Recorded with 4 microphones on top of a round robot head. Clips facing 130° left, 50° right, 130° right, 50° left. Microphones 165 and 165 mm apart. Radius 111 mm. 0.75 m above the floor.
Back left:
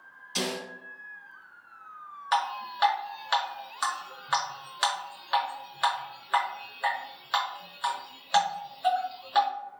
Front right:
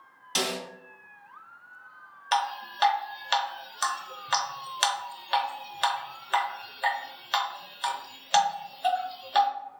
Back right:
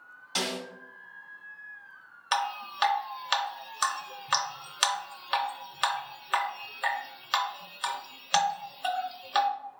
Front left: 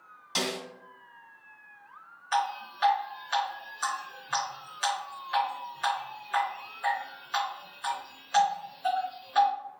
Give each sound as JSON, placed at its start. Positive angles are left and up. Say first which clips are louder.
{"t": 0.3, "sound": "a snare drum", "louder": "front right 1 dB, front left 1 dB", "azimuth_deg": -25, "distance_m": 2.0}
{"t": 2.3, "sound": "dripping", "louder": "front right 1 dB, front left 2 dB", "azimuth_deg": -115, "distance_m": 0.7}